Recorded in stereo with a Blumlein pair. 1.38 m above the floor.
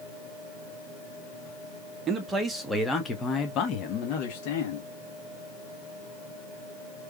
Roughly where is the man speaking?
Ahead.